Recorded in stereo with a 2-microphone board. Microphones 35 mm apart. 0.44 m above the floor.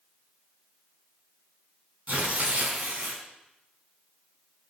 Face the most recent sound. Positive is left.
turn(degrees=-45)  # may be behind; listen again after turning